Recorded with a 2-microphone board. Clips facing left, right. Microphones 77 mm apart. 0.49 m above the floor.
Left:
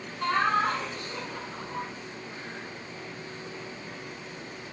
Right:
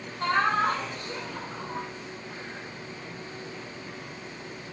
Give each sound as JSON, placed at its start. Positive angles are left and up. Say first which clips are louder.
{"t": 0.2, "sound": "laughter", "louder": "right 1 dB", "side_deg": -40, "distance_m": 2.5}